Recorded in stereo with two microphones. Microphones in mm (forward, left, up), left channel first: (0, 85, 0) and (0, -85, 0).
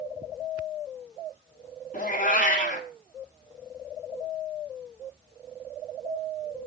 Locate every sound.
1.9 s a cat meowing: 50° left (ahead or behind), 1.7 m